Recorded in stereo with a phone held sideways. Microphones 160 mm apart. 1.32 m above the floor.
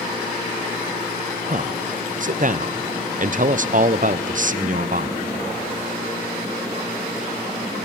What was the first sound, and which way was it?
A man speaking, 55° right (ahead or behind).